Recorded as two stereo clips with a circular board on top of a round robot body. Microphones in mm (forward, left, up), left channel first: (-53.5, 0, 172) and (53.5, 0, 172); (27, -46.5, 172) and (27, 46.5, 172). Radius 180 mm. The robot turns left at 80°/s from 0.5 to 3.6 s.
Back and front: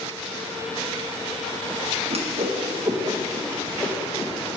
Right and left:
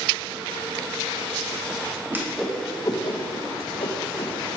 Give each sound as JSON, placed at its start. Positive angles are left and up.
{"t": 2.1, "sound": "a whoosh", "azimuth_deg": 25, "distance_m": 1.1}